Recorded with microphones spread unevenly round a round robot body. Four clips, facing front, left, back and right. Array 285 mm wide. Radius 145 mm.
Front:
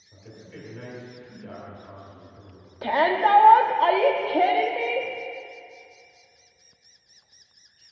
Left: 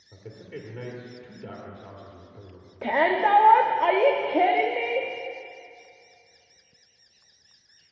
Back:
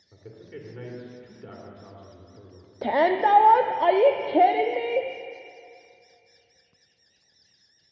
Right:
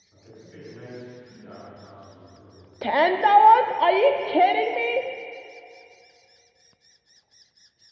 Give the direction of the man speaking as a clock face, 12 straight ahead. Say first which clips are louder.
Left 6 dB, back 2 dB; 8 o'clock.